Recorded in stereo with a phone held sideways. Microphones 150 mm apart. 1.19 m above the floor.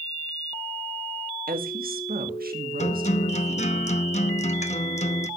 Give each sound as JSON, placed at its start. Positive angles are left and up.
{"t": 1.5, "sound": "a woman speaking", "side_deg": -70, "distance_m": 1.6}
{"t": 2.8, "sound": "a guitar", "side_deg": 50, "distance_m": 0.7}